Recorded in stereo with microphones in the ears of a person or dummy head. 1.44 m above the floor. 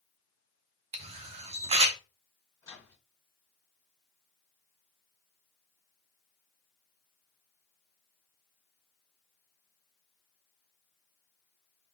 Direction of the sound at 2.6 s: 20° left (ahead or behind).